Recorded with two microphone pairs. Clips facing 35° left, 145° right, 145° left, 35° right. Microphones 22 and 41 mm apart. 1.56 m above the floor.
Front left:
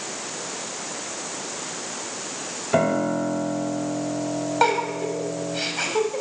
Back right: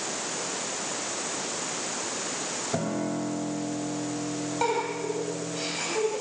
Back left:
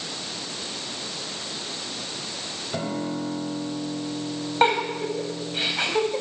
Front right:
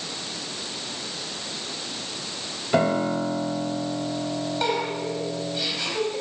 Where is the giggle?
90° left, 5 m.